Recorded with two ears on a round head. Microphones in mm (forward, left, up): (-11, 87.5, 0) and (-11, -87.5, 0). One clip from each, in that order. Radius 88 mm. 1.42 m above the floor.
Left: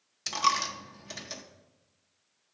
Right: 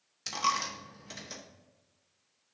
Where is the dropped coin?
10° left (ahead or behind), 0.7 m.